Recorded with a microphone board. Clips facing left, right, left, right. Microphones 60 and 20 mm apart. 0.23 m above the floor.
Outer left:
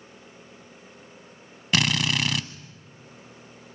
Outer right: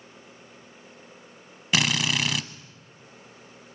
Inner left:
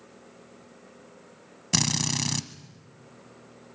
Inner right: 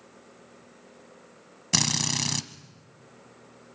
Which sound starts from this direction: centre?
A drill, at 1.7 s.